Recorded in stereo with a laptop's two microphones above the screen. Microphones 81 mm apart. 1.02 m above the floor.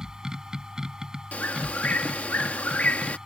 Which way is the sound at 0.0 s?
5° right (ahead or behind).